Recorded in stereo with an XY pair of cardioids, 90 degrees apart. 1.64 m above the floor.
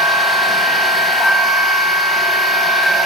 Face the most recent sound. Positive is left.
turn(degrees=60)